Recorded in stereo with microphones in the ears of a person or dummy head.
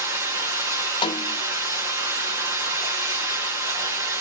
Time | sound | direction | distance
0.0 | running water | 15° right (ahead or behind) | 1.4 m
1.0 | a snare drum | 25° left (ahead or behind) | 0.6 m